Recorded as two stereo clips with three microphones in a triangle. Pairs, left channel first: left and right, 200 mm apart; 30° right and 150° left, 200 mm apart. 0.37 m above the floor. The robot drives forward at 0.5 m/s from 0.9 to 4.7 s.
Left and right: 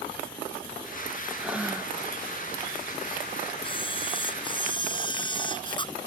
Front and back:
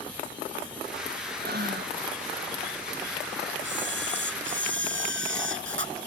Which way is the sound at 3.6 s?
155° left.